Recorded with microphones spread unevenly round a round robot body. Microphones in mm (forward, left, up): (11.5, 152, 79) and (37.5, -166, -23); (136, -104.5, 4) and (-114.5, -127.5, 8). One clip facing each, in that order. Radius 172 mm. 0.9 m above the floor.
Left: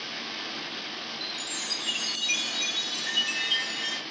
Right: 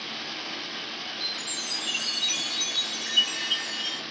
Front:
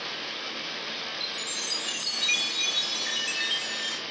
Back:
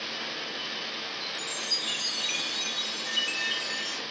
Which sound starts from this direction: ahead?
A chime, at 1.2 s.